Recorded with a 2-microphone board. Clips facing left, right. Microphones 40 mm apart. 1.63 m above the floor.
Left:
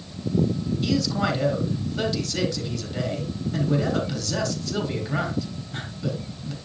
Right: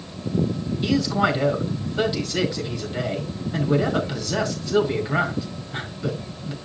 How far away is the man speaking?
About 3.5 m.